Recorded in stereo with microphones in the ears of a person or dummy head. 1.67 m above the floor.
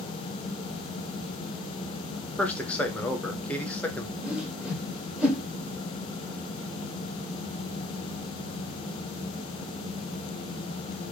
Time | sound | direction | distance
2.4 | a man speaking | 10° left (ahead or behind) | 0.8 m
4.2 | a whoosh | 5° right (ahead or behind) | 1.0 m